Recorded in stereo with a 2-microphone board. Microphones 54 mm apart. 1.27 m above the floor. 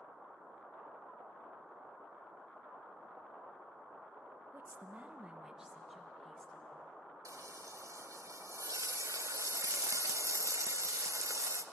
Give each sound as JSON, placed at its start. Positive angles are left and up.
{"t": 4.5, "sound": "a woman speaking", "side_deg": -45, "distance_m": 1.4}
{"t": 7.2, "sound": "frying", "side_deg": -70, "distance_m": 0.8}